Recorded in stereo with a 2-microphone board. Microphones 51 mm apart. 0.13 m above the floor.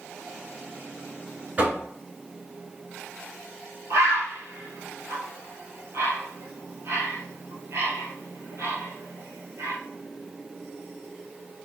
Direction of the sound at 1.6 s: 35° right (ahead or behind).